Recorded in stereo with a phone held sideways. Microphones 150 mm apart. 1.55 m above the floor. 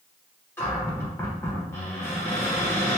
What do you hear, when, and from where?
0.6 s a cupboard door: 15° left (ahead or behind), 1.2 m